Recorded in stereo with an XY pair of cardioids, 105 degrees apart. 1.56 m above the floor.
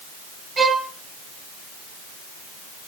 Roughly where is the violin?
Ahead right.